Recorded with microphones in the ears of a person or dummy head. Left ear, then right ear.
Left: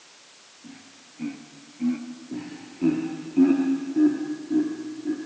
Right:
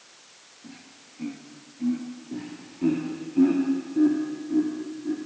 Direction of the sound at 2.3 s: 5° left (ahead or behind).